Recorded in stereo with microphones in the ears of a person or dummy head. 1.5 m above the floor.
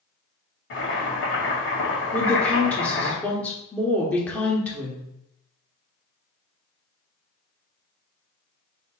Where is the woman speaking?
5° left (ahead or behind), 1.2 m.